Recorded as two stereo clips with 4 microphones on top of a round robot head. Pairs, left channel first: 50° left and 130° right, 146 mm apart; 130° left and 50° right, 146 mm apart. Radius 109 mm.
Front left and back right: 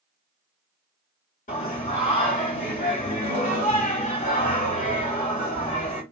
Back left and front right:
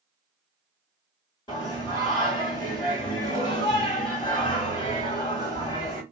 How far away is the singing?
About 2 m.